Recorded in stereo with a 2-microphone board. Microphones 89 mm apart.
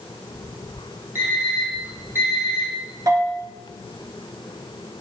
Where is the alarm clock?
25° right (ahead or behind), 5.5 m.